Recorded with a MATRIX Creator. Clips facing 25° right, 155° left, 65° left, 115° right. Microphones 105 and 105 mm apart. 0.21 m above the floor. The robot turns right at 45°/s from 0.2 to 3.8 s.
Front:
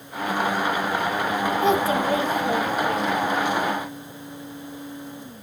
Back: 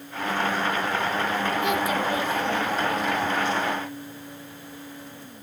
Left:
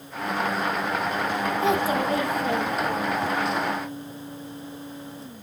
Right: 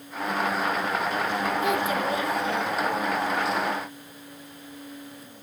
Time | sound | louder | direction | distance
1.6 | a child speaking | front 4 dB, left 2 dB | 15° left | 1.2 m